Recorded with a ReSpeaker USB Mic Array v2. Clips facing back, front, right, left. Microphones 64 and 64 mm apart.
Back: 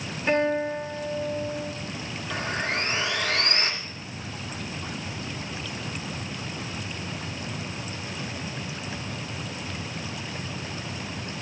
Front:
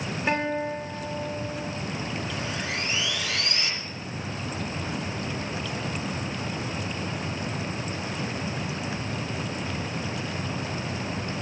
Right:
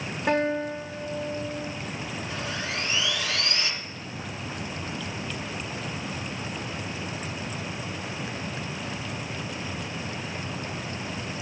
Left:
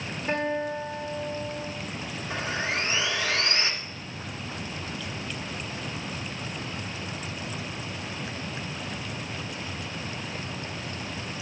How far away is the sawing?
About 1.8 m.